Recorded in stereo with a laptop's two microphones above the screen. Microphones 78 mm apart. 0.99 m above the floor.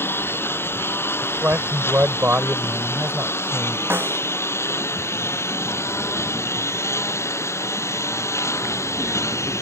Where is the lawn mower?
30° left (ahead or behind); by 9.6 s 35° left (ahead or behind).